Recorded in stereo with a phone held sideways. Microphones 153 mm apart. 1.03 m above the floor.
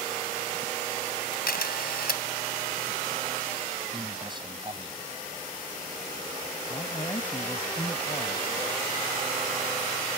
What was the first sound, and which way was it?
A camera shutter, 80° left.